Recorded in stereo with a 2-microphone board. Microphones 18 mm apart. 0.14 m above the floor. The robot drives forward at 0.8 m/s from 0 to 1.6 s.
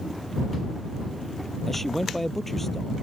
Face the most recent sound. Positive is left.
turn(degrees=10)  # may be behind; listen again after turning